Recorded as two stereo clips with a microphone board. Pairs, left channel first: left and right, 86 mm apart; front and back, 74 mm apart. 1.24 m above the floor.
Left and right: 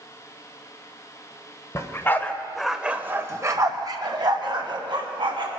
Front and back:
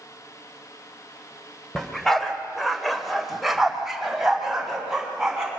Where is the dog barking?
80° left, 1.2 m; by 5.5 s 95° right, 2.5 m.